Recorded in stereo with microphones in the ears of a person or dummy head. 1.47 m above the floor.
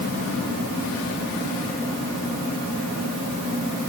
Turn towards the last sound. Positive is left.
No sound to turn to.